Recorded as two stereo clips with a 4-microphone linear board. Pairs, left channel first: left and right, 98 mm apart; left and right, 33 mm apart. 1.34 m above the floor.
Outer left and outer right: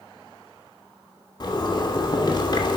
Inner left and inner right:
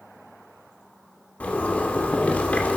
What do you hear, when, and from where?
1.4 s a zipper: 50° left (ahead or behind), 2.5 m